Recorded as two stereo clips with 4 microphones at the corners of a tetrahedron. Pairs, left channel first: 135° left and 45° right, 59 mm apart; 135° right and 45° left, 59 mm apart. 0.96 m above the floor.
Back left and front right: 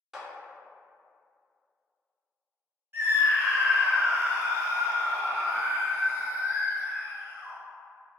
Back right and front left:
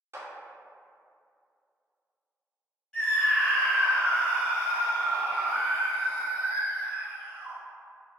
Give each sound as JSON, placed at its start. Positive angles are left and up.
{"t": 0.1, "sound": "a clap", "azimuth_deg": 40, "distance_m": 0.6}
{"t": 2.9, "sound": "a scream", "azimuth_deg": -60, "distance_m": 0.9}